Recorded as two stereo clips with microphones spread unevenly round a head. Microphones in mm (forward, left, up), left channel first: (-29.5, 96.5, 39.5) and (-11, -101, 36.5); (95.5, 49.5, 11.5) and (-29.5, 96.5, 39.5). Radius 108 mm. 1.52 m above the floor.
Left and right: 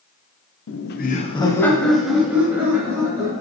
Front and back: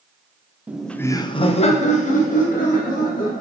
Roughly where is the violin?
I don't hear a violin.